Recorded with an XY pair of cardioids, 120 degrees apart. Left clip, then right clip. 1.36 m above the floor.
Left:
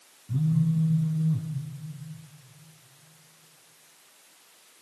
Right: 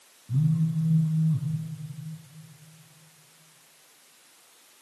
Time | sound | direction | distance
0.3 | a phone buzzing | 5° left | 3.5 m